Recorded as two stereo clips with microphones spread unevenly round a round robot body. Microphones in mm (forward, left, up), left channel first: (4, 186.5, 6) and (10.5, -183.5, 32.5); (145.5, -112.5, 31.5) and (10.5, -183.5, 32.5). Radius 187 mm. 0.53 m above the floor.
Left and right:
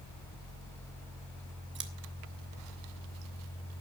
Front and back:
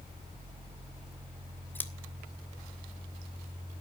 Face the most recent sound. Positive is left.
turn(degrees=-40)